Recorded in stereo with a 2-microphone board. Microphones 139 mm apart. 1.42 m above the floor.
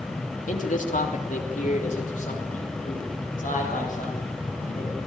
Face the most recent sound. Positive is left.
turn(degrees=80)